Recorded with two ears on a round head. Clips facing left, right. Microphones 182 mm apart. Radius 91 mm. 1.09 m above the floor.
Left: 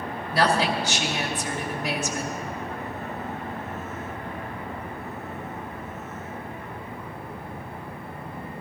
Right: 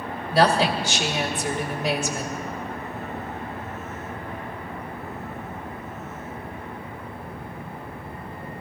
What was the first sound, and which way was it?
A woman speaking, 25° right (ahead or behind).